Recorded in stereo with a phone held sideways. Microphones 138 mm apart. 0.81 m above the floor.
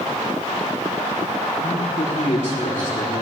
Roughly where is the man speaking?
Left.